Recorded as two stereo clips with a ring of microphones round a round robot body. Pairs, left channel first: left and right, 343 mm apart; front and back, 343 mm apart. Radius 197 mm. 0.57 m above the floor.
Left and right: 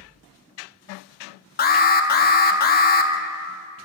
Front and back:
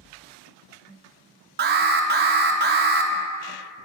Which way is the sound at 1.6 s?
140° left.